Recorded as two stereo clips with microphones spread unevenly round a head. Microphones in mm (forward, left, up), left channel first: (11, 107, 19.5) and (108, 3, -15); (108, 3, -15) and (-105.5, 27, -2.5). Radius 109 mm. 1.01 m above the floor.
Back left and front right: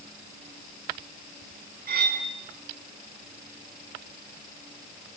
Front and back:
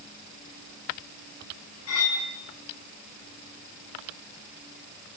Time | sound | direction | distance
1.9 | cutlery clinking | 35° right | 5 m